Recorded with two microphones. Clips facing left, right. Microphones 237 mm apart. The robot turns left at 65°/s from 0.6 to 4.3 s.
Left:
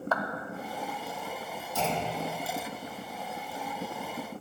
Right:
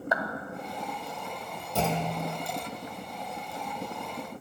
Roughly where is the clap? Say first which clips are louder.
Right 1 dB; centre.